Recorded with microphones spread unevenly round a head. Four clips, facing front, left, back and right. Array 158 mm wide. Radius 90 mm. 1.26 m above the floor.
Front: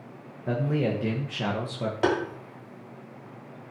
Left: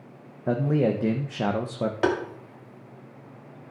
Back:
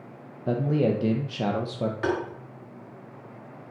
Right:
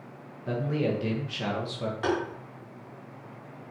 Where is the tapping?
90° left, 1.9 m.